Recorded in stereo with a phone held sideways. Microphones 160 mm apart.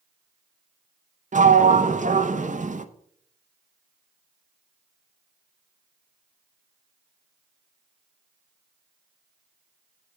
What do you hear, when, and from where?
1.3 s a sliding door: 50° right (ahead or behind), 0.7 m